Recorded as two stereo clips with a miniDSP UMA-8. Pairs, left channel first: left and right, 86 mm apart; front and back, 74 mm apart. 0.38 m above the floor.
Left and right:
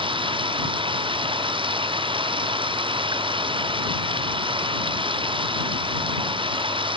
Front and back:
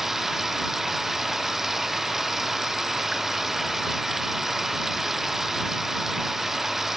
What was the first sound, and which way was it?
Running water, 95° right.